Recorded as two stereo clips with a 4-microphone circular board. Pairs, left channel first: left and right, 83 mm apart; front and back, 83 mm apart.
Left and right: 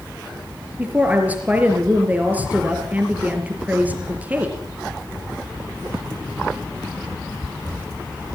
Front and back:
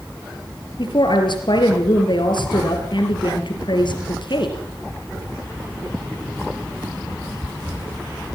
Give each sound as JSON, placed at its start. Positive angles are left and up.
{"t": 0.8, "sound": "a woman speaking", "azimuth_deg": -20, "distance_m": 4.0}